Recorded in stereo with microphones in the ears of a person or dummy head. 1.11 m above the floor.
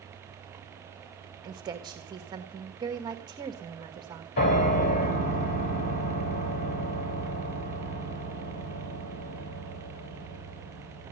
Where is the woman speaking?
20° right (ahead or behind), 1.4 m.